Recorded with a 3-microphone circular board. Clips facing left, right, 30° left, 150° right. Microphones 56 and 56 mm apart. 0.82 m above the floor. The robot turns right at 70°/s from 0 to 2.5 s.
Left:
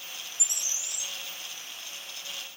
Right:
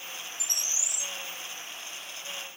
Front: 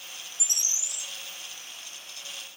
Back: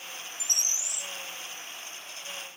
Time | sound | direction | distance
0.4 | a bird | 160° left | 1.0 m